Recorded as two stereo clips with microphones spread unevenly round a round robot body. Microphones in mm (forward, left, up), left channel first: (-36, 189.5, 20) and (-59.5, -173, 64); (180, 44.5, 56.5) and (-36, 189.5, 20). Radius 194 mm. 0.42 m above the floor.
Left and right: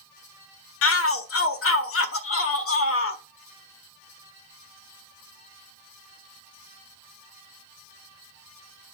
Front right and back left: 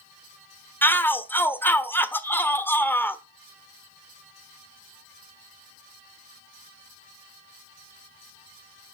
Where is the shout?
55° left, 1.2 m.